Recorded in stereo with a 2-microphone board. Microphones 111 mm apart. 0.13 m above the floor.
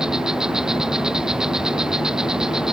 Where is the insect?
5° right (ahead or behind).